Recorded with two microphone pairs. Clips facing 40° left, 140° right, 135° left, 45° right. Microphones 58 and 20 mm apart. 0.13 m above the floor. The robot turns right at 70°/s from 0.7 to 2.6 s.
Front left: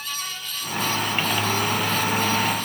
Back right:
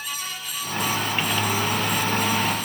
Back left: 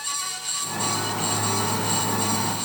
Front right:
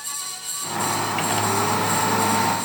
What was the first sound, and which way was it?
Only background noise.